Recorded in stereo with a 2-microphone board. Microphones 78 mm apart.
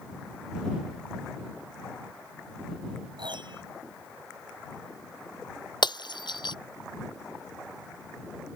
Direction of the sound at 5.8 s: 70° left (ahead or behind).